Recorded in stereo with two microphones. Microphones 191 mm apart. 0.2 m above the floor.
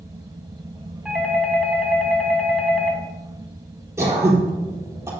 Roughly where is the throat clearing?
Centre.